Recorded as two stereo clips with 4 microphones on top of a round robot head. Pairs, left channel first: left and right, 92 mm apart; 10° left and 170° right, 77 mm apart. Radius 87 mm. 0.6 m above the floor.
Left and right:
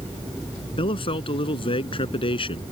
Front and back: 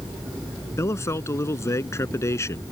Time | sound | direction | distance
0.8 | a man speaking | 65° left | ?